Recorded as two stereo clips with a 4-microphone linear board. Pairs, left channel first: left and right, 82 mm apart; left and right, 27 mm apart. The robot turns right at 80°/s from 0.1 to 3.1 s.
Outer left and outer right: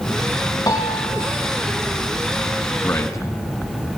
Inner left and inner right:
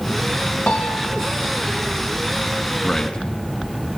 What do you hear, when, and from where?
0.7 s a piano: 135° left, 5 m; by 1.4 s 170° right, 5 m
2.8 s a man speaking: 25° left (ahead or behind), 2 m; by 4.0 s 40° left (ahead or behind), 2 m